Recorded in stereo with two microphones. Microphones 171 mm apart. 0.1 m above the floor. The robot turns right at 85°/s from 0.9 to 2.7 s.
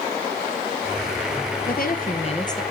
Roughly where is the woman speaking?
Left.